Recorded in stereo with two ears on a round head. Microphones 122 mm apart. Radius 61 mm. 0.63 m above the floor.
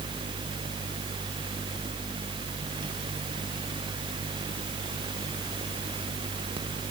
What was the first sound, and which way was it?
Only background noise.